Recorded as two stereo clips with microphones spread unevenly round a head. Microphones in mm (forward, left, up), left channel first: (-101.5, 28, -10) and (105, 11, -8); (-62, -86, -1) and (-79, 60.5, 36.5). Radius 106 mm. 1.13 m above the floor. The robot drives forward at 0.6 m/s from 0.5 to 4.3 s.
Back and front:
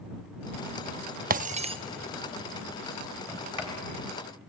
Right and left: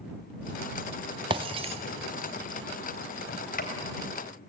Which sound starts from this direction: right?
A sliding door, at 3.3 s.